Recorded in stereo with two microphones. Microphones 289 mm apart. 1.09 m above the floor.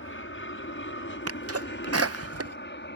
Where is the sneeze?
55° right (ahead or behind).